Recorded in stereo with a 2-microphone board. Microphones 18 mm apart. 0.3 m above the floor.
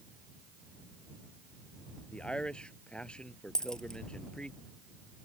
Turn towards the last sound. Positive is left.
turn(degrees=35)  # may be behind; listen again after turning